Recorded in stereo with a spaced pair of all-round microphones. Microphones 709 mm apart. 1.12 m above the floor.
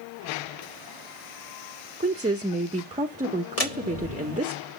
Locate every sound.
2.0 s a woman speaking: 10° right (ahead or behind), 0.8 m
3.6 s a door slam: 55° left (ahead or behind), 1.7 m